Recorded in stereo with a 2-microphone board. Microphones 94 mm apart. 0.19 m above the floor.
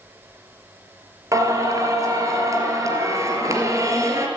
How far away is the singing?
About 3 m.